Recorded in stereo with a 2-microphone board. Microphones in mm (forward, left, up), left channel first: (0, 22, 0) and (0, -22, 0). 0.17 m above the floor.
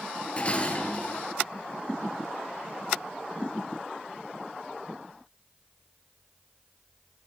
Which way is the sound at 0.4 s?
30° left (ahead or behind).